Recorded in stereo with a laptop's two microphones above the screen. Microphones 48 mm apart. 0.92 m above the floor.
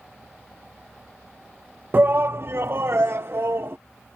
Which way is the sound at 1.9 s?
45° right (ahead or behind).